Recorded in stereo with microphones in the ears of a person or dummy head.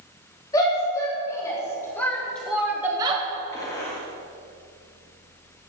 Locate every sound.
0.5 s a shout: 20° left (ahead or behind), 3.5 m; by 3.2 s 30° right (ahead or behind), 0.8 m
3.5 s a gunshot: 15° left (ahead or behind), 3 m